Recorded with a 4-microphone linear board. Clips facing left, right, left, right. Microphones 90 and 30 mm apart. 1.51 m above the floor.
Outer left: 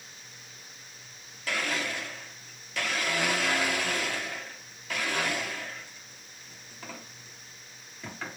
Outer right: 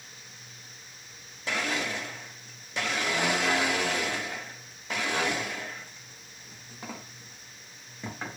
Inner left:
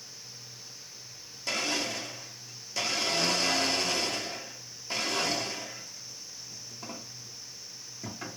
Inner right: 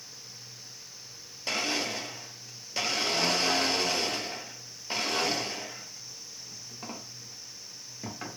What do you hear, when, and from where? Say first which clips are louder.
1.5 s a blender: outer right 1 dB, inner right 1 dB; 20° right (ahead or behind), 1.0 m